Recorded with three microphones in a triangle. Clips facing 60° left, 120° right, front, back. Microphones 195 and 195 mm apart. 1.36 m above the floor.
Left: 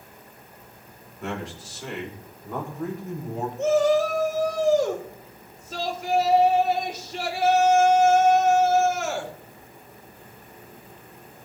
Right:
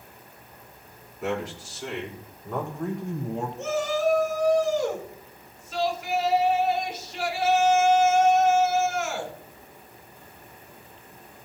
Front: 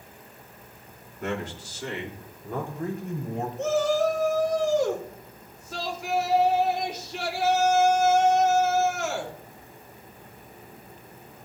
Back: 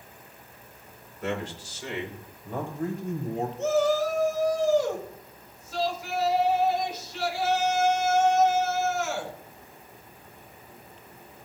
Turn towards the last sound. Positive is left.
turn(degrees=15)